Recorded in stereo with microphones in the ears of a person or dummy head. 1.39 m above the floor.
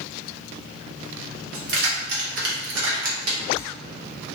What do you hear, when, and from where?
1.5 s keys jangling: 60° right (ahead or behind), 1.2 m; by 3.7 s 35° right (ahead or behind), 1.0 m